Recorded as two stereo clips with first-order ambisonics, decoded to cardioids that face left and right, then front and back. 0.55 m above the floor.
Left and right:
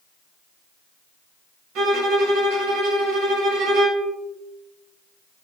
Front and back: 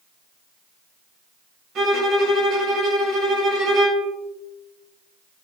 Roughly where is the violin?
Behind right.